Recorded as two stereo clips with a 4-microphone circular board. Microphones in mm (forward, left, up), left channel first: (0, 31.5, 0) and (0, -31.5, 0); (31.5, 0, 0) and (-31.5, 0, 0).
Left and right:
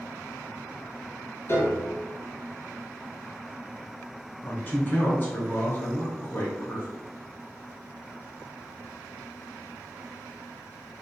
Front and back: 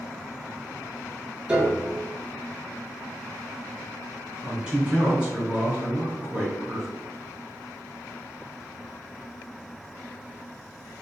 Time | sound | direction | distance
1.5 | a piano | 110° left | 1.2 m
4.4 | a man speaking | 115° left | 1.2 m